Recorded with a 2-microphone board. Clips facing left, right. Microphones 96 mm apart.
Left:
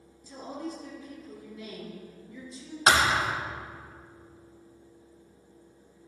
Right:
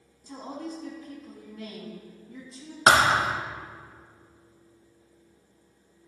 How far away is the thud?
About 0.5 m.